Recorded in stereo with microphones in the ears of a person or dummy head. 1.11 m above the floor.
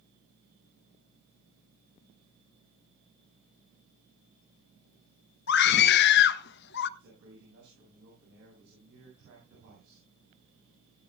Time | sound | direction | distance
5.5 | a scream | 60° left (ahead or behind) | 1.3 m
7.0 | a man speaking | 70° right (ahead or behind) | 8.5 m